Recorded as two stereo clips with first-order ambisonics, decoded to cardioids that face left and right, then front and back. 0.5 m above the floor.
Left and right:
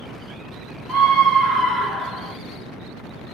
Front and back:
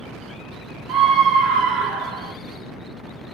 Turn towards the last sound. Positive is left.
turn(degrees=180)